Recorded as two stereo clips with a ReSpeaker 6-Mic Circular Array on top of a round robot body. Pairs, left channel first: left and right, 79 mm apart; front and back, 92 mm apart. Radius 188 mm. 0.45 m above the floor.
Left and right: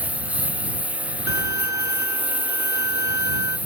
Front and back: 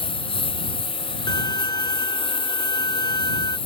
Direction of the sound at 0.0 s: 15° right.